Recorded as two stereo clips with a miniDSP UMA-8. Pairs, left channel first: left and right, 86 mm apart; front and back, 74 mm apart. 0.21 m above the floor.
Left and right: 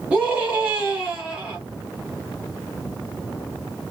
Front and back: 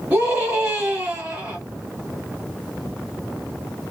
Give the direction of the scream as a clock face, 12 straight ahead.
5 o'clock.